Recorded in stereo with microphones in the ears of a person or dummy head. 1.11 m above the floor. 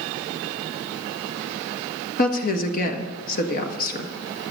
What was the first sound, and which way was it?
A woman speaking, 45° left (ahead or behind).